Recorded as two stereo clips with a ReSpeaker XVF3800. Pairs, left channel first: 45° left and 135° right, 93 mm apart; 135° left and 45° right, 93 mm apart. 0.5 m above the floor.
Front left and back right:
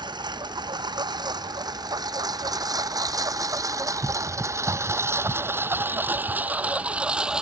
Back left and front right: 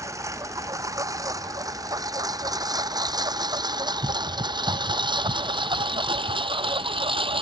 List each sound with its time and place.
0.0 s a lawn mower: 100° right; by 7.4 s 55° right